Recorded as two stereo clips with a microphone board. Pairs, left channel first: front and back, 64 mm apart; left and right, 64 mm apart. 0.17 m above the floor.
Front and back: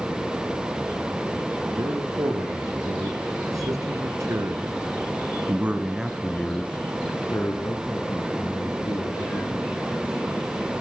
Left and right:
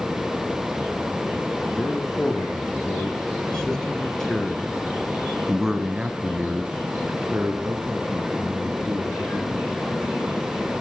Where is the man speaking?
165° left, 5 m; by 9.9 s 25° right, 4.5 m.